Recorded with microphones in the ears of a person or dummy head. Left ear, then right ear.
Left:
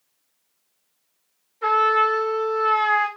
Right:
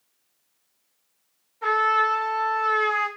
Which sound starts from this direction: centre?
A trumpet, at 1.6 s.